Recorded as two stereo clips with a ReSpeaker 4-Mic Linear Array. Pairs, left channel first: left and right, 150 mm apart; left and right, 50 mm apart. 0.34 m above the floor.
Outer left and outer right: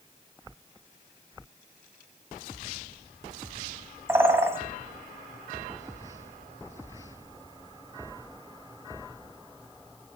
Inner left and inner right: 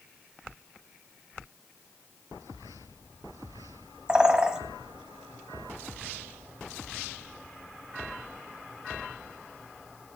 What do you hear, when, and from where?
4.1 s a bird: 15° right (ahead or behind), 1.2 m